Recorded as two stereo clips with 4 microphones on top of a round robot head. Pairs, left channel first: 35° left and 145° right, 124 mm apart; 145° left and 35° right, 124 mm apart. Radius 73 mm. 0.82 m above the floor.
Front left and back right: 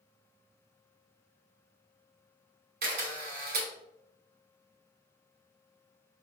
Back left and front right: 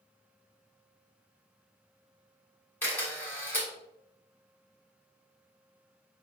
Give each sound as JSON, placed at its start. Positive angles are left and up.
{"t": 2.8, "sound": "a camera shutter", "azimuth_deg": -145, "distance_m": 1.6}